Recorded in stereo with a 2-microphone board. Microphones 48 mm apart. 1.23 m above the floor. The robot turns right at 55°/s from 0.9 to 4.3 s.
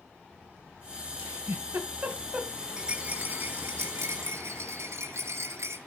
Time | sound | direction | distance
1.2 | a giggle | 70° right (ahead or behind) | 2.5 m
2.8 | a rattle | 165° right | 2.5 m